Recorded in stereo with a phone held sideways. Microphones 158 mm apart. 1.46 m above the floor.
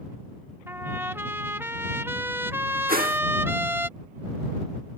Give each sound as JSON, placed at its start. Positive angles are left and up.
{"t": 0.7, "sound": "a trumpet", "side_deg": -15}
{"t": 2.9, "sound": "a whoosh", "side_deg": -70}